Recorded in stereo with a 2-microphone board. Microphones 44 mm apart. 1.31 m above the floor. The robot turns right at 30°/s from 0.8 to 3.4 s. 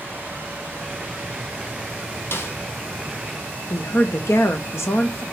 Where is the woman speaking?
75° left (ahead or behind), 1.1 m.